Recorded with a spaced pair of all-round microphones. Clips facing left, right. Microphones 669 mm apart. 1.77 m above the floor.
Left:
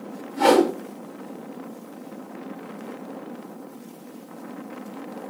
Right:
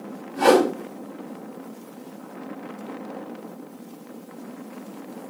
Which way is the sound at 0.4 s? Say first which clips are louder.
Even; 5° right (ahead or behind).